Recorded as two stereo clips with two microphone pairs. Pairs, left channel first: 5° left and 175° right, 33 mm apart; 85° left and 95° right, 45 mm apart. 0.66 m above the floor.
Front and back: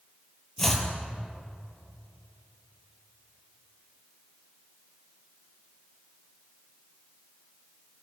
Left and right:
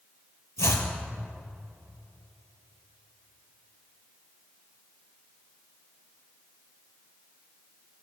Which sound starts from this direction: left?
Chopping, at 0.6 s.